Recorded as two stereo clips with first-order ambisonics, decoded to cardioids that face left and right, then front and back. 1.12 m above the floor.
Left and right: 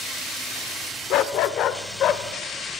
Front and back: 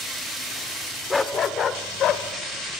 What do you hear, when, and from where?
1.1 s a dog barking: 75° left, 0.9 m; by 2.2 s 40° left, 1.5 m